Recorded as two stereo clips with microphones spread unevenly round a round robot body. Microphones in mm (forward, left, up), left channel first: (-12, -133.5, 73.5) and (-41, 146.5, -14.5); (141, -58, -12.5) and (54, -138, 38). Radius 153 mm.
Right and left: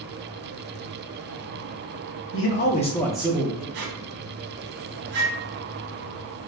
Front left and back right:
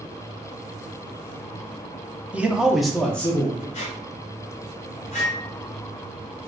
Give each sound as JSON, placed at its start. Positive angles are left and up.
{"t": 2.3, "sound": "a man speaking", "azimuth_deg": -40, "distance_m": 0.7}
{"t": 3.7, "sound": "a squeak", "azimuth_deg": 40, "distance_m": 0.7}
{"t": 5.0, "sound": "a microwave", "azimuth_deg": 95, "distance_m": 0.6}